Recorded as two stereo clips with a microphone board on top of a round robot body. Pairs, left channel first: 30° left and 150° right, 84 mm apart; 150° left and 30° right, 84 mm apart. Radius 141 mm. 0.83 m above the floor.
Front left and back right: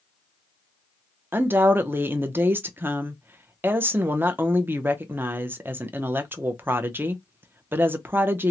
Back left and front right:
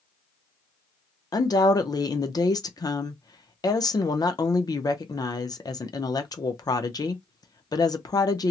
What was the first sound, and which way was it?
A woman speaking, 155° left.